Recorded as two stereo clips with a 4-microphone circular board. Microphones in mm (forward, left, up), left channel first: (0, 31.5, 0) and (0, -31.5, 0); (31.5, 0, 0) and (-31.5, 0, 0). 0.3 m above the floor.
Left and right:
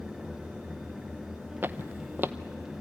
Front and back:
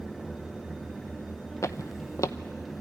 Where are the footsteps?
35° right, 0.6 m.